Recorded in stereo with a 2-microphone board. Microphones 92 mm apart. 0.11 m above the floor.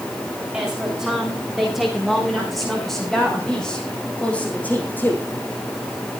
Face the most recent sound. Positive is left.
turn(degrees=25)  # may be behind; listen again after turning